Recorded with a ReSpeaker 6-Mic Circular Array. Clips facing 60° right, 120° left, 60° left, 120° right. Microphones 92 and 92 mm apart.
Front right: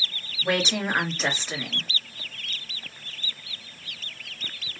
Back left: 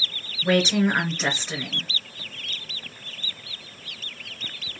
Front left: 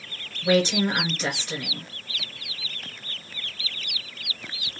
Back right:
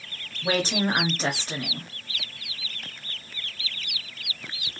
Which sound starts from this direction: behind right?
A woman speaking, at 0.4 s.